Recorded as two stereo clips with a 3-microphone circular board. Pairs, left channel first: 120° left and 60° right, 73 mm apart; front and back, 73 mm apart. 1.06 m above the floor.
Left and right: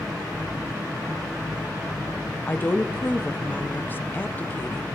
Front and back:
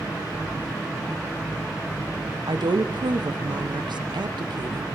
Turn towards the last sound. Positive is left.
turn(degrees=-175)